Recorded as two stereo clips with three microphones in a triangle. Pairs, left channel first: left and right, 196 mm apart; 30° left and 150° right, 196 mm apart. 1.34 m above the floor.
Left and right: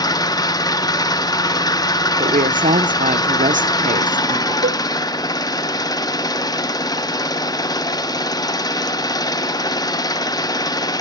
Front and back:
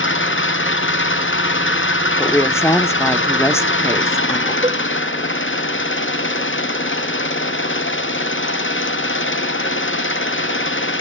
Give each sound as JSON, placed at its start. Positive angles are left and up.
{"t": 0.0, "sound": "an engine running", "azimuth_deg": 20, "distance_m": 0.8}
{"t": 2.2, "sound": "a woman speaking", "azimuth_deg": -45, "distance_m": 0.9}
{"t": 4.6, "sound": "a cowbell", "azimuth_deg": -90, "distance_m": 1.2}